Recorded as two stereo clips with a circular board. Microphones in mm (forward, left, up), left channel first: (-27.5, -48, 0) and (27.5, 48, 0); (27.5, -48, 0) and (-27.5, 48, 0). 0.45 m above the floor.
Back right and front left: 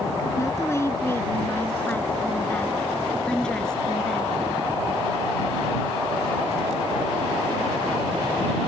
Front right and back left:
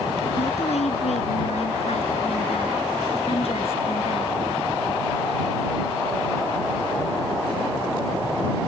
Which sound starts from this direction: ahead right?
A woman speaking, at 0.4 s.